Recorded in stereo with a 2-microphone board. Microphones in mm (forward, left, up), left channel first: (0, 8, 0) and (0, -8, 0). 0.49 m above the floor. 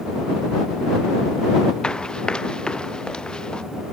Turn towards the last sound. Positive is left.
turn(degrees=80)